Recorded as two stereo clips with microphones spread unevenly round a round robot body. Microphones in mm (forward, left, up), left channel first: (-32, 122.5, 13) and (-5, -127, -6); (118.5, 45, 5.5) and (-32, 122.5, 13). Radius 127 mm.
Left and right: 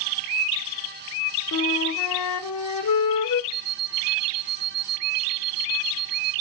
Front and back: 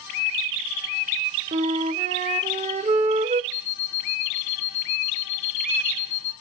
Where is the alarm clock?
30° right, 4.5 m.